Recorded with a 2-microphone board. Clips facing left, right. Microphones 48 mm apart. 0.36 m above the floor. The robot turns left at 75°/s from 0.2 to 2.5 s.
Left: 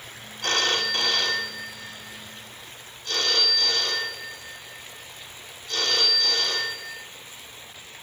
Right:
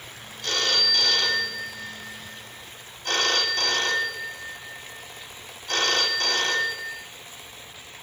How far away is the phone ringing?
About 1.9 m.